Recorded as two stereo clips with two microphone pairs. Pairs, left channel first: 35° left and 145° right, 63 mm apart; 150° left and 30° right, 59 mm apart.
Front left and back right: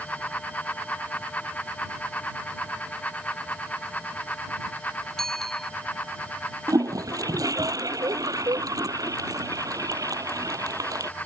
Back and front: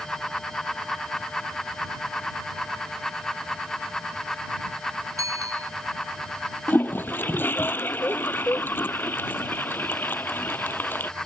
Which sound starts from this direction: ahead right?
A bicycle bell, at 5.2 s.